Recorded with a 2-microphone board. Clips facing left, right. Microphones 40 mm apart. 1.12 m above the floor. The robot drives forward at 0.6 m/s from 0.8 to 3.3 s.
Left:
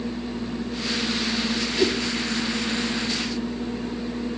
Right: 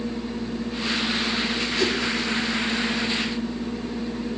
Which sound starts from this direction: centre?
A whoosh, at 1.8 s.